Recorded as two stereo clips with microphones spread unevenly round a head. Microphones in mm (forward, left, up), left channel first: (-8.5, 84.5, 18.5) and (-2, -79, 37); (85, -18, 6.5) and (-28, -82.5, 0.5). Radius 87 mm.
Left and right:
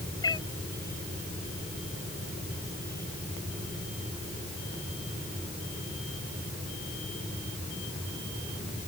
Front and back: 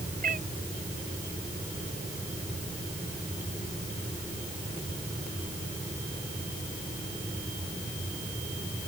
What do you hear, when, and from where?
0.2 s a cat meowing: 160° left